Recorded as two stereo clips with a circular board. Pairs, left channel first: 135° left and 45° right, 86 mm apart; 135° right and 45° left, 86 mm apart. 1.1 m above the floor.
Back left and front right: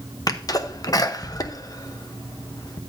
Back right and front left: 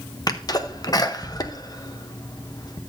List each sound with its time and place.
0.3 s a sneeze: 175° right, 0.9 m